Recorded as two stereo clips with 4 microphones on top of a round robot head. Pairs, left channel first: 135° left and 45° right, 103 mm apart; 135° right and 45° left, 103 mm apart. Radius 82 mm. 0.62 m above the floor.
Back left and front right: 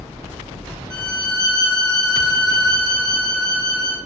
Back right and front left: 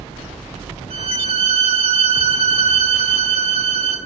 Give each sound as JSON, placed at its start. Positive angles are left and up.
{"t": 0.9, "sound": "a violin", "azimuth_deg": 50, "distance_m": 6.0}